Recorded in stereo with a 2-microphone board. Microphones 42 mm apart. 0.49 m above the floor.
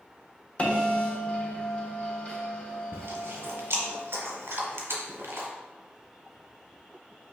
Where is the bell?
30° left (ahead or behind), 0.8 m.